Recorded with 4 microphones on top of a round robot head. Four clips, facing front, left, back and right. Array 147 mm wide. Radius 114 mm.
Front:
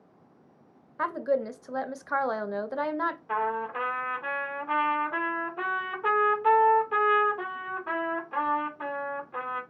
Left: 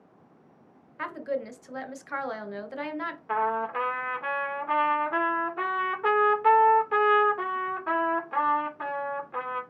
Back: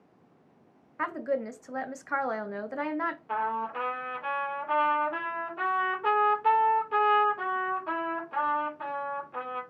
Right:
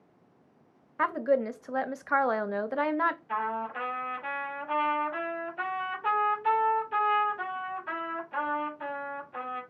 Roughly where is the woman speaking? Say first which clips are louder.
Right 6 dB, front 3 dB; right.